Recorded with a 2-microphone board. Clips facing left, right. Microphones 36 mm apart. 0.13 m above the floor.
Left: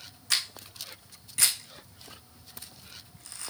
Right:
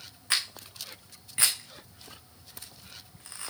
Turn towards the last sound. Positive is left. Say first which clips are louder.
# even
turn(degrees=-25)  # may be behind; listen again after turning